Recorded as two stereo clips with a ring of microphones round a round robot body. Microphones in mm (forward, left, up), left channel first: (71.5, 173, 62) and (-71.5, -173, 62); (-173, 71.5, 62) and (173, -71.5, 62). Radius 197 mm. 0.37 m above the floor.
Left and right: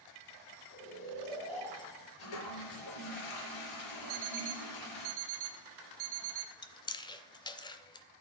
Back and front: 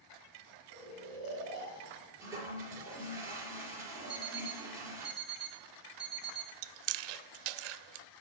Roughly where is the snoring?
Behind.